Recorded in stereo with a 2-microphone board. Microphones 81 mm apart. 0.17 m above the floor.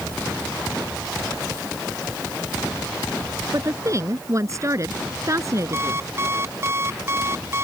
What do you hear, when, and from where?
3.5 s a woman speaking: 40° right (ahead or behind)
5.7 s an alarm clock: 30° right (ahead or behind)